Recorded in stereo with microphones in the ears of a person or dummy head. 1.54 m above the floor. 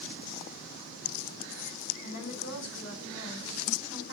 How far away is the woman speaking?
About 10 m.